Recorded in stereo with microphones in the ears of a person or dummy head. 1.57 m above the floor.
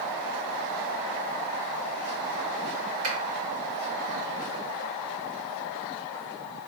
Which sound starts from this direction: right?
A finger snap, at 3.0 s.